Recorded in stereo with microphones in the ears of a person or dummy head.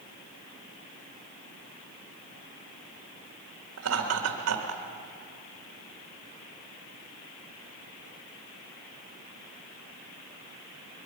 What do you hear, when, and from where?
3.8 s laughter: 75° right (ahead or behind), 2.5 m; by 4.8 s 85° right, 2 m